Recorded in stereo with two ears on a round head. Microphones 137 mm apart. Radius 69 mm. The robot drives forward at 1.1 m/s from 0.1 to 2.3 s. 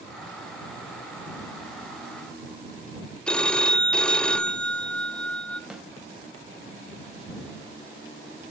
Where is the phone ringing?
5° left (ahead or behind), 1.2 m.